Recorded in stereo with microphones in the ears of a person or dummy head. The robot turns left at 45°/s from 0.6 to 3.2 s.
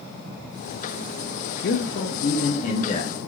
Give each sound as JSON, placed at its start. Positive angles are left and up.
{"t": 1.6, "sound": "a man speaking", "azimuth_deg": 100, "distance_m": 0.6}